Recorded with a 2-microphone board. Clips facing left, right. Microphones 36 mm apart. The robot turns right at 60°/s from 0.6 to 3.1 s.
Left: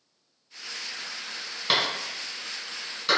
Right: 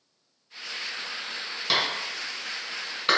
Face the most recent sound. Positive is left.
turn(degrees=-30)  # may be behind; listen again after turning